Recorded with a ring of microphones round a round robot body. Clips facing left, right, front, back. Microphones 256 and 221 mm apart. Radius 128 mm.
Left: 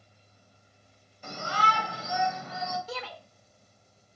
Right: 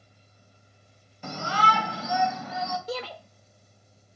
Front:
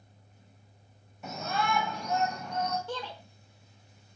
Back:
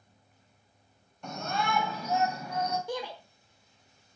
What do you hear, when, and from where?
1.2 s a shout: 85° right, 2.5 m; by 2.8 s 100° right, 3.5 m
2.9 s a shout: 110° right, 1.1 m